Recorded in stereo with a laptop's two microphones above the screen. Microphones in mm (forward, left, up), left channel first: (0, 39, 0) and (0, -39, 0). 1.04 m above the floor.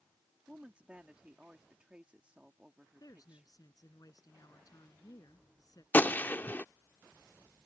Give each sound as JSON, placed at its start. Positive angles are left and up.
{"t": 0.5, "sound": "a woman speaking", "side_deg": -15}
{"t": 3.0, "sound": "a woman speaking", "side_deg": 50}
{"t": 5.9, "sound": "a gunshot", "side_deg": 25}